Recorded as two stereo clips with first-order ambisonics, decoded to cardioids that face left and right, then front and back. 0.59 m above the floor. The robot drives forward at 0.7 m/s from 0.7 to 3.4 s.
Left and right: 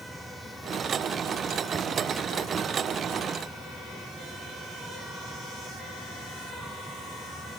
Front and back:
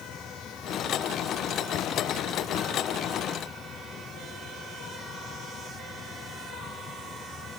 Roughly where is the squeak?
No squeak in this recording.